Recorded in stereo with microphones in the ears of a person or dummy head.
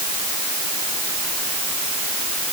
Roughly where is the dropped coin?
I don't hear a dropped coin.